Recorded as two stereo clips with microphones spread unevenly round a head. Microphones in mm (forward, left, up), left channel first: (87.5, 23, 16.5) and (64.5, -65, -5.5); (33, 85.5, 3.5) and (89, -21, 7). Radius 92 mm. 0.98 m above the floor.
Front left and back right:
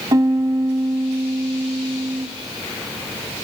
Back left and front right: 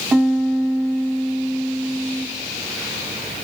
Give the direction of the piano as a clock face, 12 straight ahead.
4 o'clock.